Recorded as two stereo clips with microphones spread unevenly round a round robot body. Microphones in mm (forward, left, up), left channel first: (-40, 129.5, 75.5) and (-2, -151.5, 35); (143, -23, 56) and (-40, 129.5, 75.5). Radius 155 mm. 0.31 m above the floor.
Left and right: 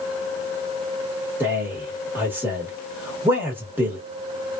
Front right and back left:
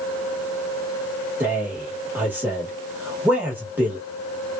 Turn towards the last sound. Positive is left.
turn(degrees=-135)